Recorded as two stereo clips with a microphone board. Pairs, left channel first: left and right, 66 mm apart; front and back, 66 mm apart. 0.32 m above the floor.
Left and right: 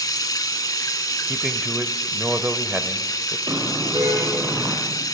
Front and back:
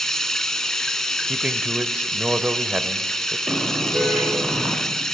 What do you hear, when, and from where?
0.0 s running water: 85° left, 1.0 m
1.3 s a man speaking: 130° right, 0.9 m
3.5 s a car horn: 110° right, 6.5 m